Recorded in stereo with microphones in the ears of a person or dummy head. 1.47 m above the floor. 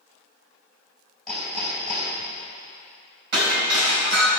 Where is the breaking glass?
60° right (ahead or behind), 3 m.